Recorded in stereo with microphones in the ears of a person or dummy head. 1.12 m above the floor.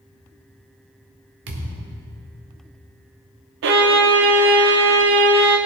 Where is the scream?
I don't hear a scream.